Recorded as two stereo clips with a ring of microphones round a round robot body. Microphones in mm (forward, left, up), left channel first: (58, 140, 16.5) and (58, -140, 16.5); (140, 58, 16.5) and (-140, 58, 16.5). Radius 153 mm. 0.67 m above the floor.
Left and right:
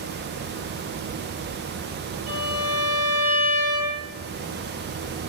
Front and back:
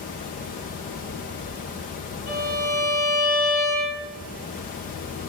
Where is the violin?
110° right, 5 m.